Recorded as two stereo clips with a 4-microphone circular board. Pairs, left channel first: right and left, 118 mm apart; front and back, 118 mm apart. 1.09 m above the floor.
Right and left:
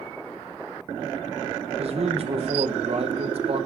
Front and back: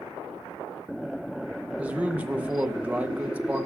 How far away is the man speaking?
About 0.8 m.